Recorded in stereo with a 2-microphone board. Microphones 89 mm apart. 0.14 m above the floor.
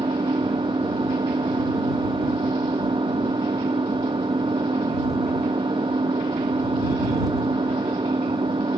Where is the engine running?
60° right (ahead or behind).